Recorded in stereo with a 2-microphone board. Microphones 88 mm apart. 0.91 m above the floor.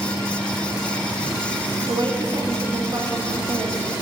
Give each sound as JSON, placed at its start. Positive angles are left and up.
{"t": 1.9, "sound": "a woman speaking", "side_deg": -65, "distance_m": 1.1}